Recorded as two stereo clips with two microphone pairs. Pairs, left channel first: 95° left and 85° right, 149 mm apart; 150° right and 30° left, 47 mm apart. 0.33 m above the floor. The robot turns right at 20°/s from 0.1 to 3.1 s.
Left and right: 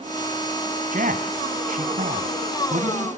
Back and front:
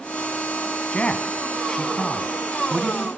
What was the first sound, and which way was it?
A man speaking, 90° right.